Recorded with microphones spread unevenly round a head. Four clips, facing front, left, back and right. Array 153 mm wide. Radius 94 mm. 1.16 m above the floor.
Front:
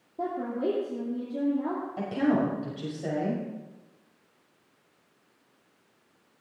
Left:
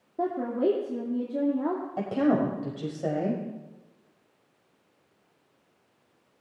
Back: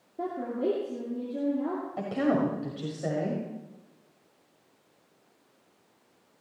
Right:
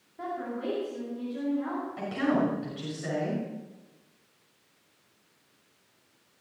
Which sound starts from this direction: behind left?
A woman speaking, at 2.0 s.